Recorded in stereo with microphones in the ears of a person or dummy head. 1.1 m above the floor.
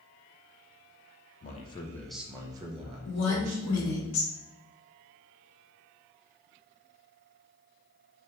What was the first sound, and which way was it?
A man speaking, 40° left (ahead or behind).